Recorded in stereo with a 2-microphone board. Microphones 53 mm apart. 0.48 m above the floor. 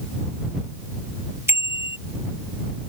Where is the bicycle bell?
55° right (ahead or behind).